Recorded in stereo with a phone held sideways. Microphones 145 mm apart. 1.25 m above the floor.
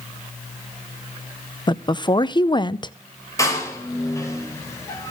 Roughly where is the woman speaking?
Left.